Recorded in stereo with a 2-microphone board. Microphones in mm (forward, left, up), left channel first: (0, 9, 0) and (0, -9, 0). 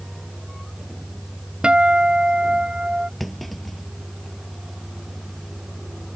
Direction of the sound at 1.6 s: 55° right (ahead or behind).